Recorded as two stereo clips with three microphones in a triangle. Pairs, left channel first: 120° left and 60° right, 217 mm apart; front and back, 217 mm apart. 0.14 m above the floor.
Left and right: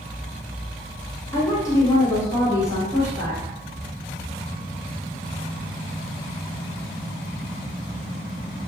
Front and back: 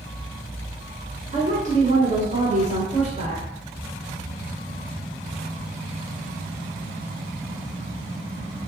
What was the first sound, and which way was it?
A woman speaking, 175° right.